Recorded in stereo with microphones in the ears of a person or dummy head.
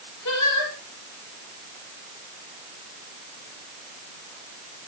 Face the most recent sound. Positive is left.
turn(degrees=80)